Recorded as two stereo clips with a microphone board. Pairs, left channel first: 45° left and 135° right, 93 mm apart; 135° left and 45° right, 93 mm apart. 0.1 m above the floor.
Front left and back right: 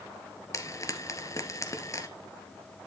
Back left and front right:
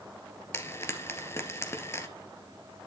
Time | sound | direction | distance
0.5 | frying | 85° left | 1.9 m